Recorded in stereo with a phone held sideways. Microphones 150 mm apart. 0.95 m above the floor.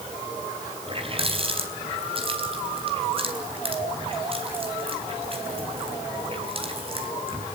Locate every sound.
0.9 s a running tap: 40° right (ahead or behind), 4 m